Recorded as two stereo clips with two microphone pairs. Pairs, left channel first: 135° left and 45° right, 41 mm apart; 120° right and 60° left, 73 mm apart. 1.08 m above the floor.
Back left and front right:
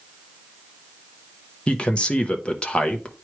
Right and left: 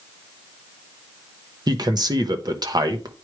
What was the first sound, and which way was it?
A man speaking, 70° left.